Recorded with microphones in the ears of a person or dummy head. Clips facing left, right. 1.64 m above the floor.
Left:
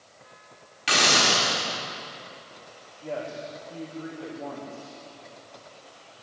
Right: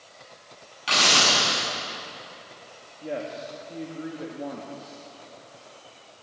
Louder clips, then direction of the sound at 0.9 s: Left 1 dB; 20° left (ahead or behind).